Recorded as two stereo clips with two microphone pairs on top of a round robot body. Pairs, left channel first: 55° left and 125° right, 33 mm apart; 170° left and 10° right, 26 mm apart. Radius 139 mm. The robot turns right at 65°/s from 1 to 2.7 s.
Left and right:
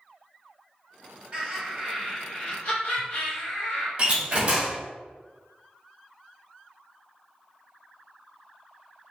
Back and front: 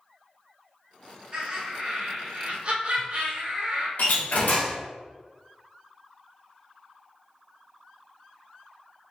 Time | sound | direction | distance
1.3 | laughter | 65° right | 1.8 m
4.0 | a door slam | 175° left | 1.2 m